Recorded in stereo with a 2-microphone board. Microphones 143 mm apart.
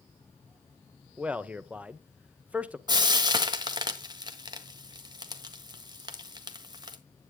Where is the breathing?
I don't hear breathing.